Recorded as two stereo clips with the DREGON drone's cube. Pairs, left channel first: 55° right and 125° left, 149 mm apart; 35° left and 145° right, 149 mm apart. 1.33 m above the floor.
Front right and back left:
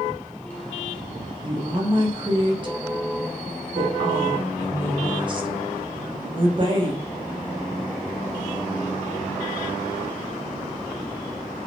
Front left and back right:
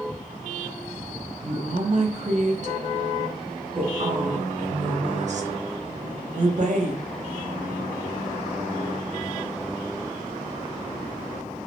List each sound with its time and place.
1.4 s a woman speaking: straight behind, 0.7 m